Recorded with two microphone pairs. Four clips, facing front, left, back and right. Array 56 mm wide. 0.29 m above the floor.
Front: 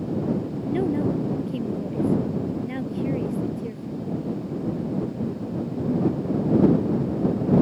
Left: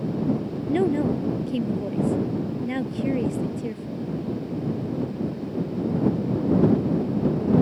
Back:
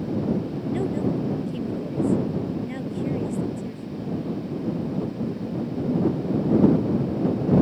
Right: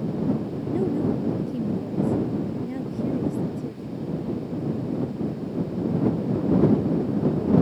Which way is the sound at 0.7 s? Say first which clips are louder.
Left 3 dB, front 2 dB; 80° left.